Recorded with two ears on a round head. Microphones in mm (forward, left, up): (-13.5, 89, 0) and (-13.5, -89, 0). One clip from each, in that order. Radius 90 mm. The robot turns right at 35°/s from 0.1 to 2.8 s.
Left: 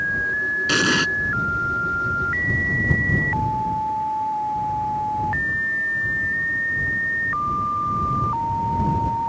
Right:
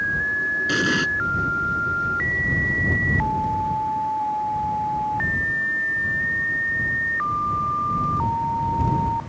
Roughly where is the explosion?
Left.